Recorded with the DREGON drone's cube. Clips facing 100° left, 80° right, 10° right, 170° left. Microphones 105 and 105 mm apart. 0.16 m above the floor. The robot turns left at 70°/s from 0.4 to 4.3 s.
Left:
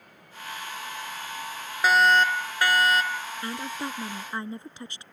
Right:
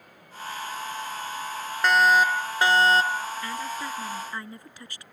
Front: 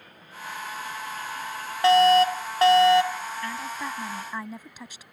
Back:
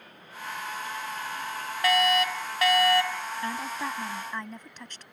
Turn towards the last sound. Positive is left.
turn(degrees=60)